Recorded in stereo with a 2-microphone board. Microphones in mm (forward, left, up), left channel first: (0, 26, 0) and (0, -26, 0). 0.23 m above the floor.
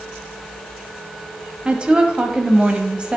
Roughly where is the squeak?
I don't hear a squeak.